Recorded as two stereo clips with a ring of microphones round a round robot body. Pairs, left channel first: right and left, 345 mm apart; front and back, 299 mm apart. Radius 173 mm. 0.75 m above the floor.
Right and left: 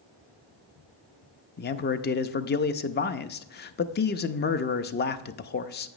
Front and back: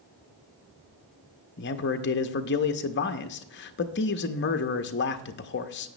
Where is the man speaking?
40° right, 0.5 m.